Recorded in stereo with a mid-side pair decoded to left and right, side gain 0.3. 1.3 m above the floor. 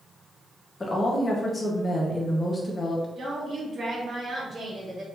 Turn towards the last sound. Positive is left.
turn(degrees=-50)